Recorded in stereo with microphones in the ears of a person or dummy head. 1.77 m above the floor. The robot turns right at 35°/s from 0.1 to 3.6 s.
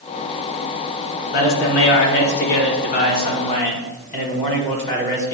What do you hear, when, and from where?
1.3 s a man speaking: 60° left, 1.7 m; by 5.3 s 140° left, 1.7 m